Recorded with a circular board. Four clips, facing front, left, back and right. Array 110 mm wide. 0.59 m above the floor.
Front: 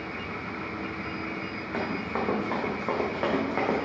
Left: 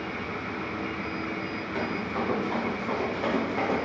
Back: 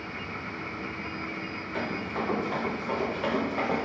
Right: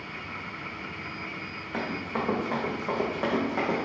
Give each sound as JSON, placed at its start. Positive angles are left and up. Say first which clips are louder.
{"t": 1.7, "sound": "running footsteps", "louder": "even, front 2 dB", "azimuth_deg": -30, "distance_m": 3.0}